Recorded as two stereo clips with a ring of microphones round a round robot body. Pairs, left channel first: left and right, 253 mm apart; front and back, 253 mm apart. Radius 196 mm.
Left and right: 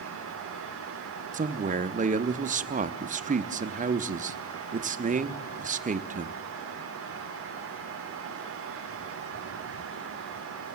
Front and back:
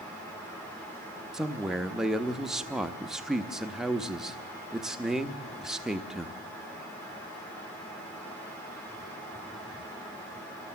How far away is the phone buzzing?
No phone buzzing in this recording.